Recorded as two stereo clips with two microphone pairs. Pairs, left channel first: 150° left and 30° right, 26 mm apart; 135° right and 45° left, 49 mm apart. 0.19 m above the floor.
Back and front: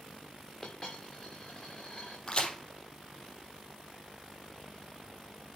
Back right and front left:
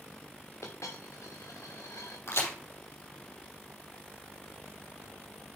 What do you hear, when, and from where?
0.6 s a dropped coin: 150° right, 3 m
2.3 s a crack: 155° right, 4.5 m